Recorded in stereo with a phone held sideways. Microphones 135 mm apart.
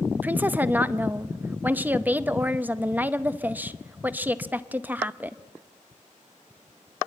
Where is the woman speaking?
15° right (ahead or behind), 0.8 m.